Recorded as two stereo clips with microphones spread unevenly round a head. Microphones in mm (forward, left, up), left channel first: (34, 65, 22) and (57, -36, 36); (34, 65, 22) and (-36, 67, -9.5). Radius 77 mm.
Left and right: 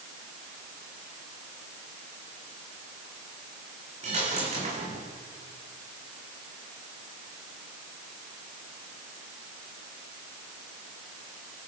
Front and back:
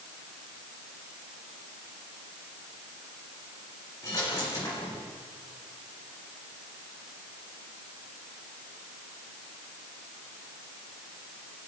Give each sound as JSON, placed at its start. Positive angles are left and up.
{"t": 4.0, "sound": "a dropped coin", "azimuth_deg": -65, "distance_m": 7.0}